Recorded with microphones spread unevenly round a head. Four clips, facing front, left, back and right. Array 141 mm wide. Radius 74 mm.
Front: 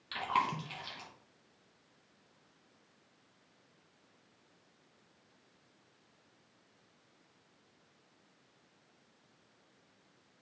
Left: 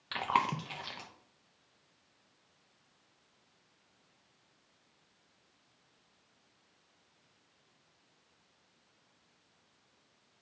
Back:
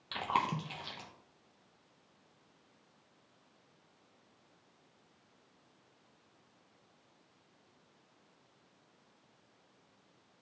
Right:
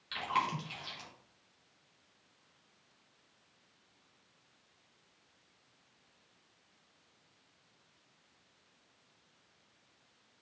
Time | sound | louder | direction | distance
0.1 | chewing | left 3 dB, even | 120° left | 0.9 m